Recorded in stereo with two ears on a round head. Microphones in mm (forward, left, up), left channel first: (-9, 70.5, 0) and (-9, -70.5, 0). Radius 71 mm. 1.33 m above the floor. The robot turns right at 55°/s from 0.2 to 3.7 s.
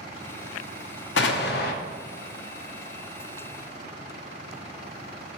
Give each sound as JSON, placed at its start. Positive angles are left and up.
{"t": 1.2, "sound": "an explosion", "azimuth_deg": 85, "distance_m": 0.7}